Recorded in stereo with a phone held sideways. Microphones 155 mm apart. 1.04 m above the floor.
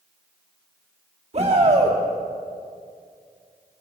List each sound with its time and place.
1.3 s a shout: 45° right (ahead or behind), 2.5 m